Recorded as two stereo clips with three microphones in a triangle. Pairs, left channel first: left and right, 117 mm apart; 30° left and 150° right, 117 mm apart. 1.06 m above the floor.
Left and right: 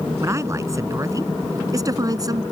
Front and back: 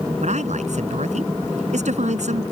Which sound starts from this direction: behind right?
A man speaking, at 0.2 s.